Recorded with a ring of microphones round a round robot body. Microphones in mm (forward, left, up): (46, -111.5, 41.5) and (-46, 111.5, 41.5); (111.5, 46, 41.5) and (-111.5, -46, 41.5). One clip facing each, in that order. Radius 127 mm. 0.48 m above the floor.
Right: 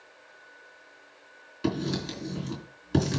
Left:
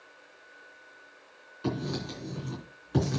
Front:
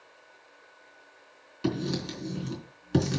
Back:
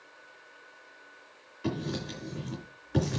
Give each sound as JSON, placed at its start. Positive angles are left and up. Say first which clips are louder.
{"t": 1.6, "sound": "writing", "louder": "right 3 dB, front 4 dB", "azimuth_deg": -15, "distance_m": 3.5}